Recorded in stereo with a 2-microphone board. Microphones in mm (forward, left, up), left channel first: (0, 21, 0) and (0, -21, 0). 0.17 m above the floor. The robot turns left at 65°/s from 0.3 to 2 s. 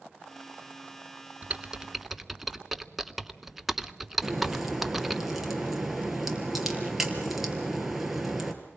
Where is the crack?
5° right (ahead or behind), 3.5 m.